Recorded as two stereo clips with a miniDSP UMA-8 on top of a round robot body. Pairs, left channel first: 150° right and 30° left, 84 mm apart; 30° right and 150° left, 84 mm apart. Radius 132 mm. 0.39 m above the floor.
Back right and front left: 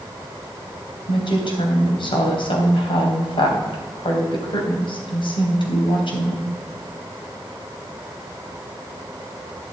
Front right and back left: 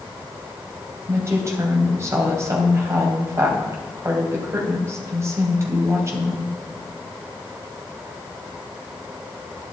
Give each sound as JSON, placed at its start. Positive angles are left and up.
{"t": 1.1, "sound": "a woman speaking", "azimuth_deg": -155, "distance_m": 3.0}